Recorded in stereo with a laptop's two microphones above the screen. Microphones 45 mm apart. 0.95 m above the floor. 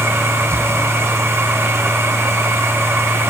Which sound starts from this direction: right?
A machine running, at 0.0 s.